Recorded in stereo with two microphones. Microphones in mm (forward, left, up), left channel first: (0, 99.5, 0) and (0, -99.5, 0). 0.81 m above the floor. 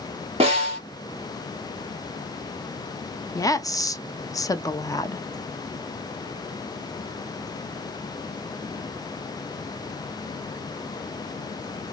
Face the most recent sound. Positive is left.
turn(degrees=20)  # may be behind; listen again after turning